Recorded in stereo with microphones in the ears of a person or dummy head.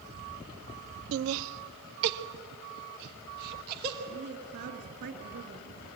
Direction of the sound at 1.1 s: 75° right (ahead or behind).